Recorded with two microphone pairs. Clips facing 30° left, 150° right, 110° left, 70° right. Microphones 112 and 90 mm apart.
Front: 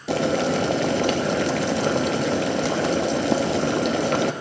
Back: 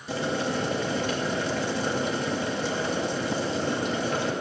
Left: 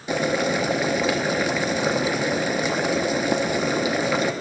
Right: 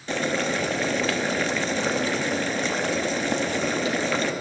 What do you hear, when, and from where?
0.1 s boiling: 30° left, 0.6 m